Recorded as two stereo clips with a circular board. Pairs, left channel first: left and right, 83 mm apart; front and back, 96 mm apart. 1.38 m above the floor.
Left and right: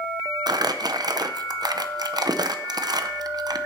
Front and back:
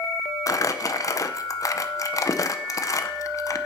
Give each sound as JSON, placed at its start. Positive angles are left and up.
{"t": 0.5, "sound": "crumpling", "azimuth_deg": -50, "distance_m": 0.6}